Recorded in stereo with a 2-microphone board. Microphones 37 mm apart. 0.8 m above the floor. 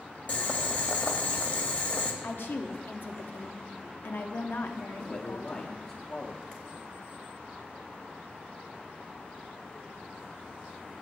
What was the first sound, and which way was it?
Boiling, 45° left (ahead or behind).